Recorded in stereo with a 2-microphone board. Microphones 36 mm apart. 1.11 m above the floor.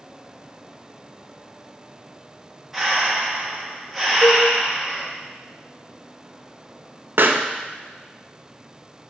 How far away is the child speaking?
No child speaking in this recording.